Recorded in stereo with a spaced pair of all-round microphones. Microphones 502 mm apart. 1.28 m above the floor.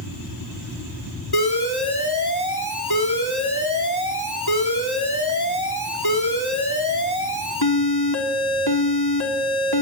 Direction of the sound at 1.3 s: 50° left (ahead or behind).